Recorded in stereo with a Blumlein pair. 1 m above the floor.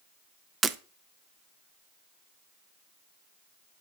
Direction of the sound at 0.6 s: 15° right.